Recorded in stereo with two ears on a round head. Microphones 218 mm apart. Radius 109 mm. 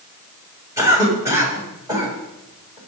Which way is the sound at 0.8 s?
15° right (ahead or behind).